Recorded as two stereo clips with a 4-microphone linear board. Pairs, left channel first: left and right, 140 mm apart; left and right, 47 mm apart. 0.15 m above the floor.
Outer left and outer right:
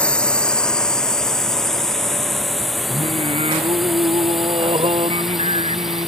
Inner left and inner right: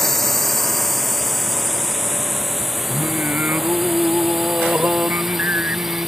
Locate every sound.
0.0 s a drone: 5° left (ahead or behind); by 6.1 s 5° right (ahead or behind)
2.9 s singing: 45° right (ahead or behind)